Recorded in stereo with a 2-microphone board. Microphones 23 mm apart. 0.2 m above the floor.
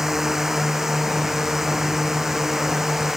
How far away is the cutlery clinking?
I don't hear cutlery clinking.